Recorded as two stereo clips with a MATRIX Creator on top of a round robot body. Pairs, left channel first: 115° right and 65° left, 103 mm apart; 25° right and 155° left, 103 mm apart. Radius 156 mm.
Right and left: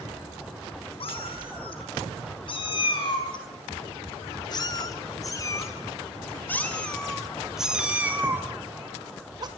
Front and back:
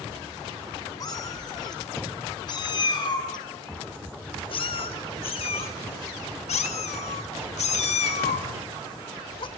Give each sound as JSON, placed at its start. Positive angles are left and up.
{"t": 1.0, "sound": "a cat meowing", "azimuth_deg": -80, "distance_m": 5.0}